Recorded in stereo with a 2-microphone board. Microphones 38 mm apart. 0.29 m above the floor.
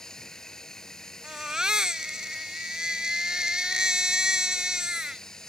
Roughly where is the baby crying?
Centre.